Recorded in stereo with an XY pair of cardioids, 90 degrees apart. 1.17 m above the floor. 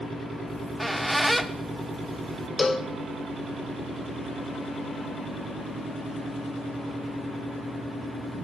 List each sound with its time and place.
0.5 s a squeak: 5° right, 1.0 m
2.6 s a cowbell: 30° left, 0.7 m